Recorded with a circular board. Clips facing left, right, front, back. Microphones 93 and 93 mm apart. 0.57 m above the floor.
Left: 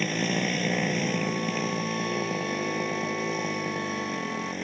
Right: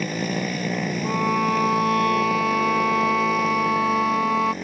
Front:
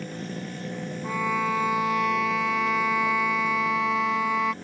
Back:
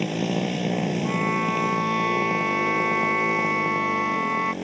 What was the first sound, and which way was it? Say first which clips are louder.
A motorcycle: right 2 dB, back 10 dB; 175° right.